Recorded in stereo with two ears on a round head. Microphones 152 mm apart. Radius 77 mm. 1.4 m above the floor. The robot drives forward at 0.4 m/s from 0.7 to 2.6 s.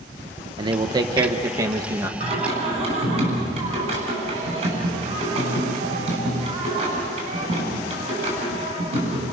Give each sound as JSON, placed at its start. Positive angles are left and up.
{"t": 0.6, "sound": "a man speaking", "side_deg": -25, "distance_m": 1.1}
{"t": 2.2, "sound": "singing", "side_deg": -40, "distance_m": 7.5}